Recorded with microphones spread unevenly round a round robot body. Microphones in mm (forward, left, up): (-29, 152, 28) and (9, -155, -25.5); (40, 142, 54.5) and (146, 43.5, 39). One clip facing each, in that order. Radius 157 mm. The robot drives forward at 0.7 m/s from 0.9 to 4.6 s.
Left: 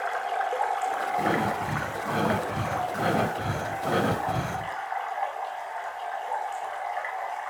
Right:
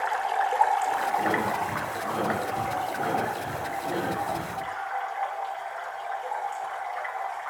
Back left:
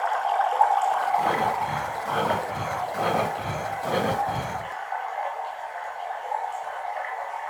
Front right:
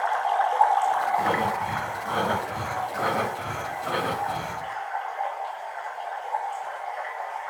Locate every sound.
0.0 s running water: 130° right, 0.9 m; by 7.5 s 175° right, 3 m
1.2 s breathing: 35° left, 2.5 m; by 4.8 s 105° left, 1.7 m